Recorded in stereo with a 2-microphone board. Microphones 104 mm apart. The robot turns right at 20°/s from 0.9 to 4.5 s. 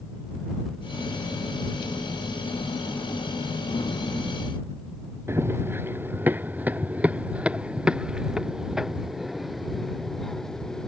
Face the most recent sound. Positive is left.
turn(degrees=5)  # may be behind; listen again after turning